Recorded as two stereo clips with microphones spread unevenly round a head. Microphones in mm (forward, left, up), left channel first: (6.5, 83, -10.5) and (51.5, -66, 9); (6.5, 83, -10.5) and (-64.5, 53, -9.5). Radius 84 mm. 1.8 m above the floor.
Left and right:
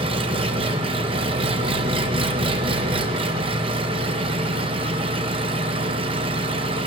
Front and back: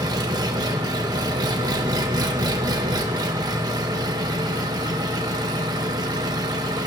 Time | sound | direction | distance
0.0 | an engine running | 120° right | 1.3 m